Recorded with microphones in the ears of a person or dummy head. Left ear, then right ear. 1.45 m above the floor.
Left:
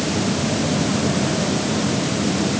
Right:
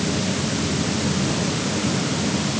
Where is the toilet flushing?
No toilet flushing in this recording.